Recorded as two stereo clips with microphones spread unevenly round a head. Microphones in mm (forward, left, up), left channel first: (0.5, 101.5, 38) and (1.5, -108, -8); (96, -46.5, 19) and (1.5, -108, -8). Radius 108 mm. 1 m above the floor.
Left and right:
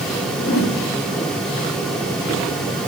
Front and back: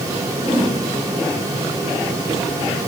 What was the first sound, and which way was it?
A whoosh, 115° left.